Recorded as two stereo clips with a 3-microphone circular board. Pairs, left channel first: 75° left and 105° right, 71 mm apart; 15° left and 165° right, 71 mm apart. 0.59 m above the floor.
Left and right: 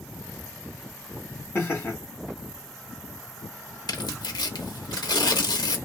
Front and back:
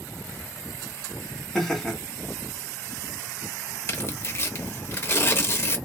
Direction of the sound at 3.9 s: 70° left.